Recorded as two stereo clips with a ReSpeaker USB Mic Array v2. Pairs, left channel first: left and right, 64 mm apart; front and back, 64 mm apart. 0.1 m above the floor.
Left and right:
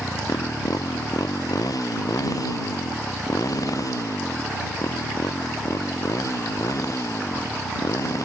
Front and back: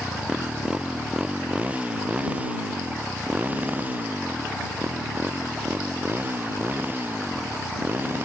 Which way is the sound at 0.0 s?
105° left.